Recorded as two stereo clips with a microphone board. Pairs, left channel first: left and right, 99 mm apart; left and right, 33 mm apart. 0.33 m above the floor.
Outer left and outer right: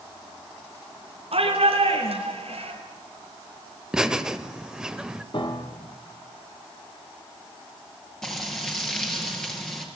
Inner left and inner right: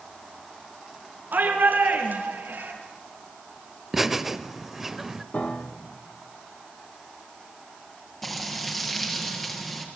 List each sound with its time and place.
1.3 s a shout: 75° right (ahead or behind), 4.5 m; by 2.7 s 80° right, 6 m
3.9 s laughter: 5° right (ahead or behind), 1.3 m
5.3 s a piano: 55° left (ahead or behind), 2.5 m
8.2 s frying: 5° left (ahead or behind), 5 m